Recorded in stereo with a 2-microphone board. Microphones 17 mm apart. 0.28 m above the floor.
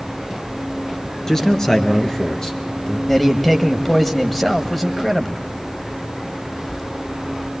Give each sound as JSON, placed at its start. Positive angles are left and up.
{"t": 1.3, "sound": "a man speaking", "side_deg": 35, "distance_m": 4.0}
{"t": 3.1, "sound": "a man speaking", "side_deg": 15, "distance_m": 1.5}